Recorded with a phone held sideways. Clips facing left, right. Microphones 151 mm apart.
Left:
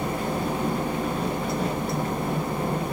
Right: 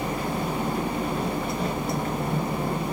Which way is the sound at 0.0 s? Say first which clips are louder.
Left 1 dB; 50° left (ahead or behind).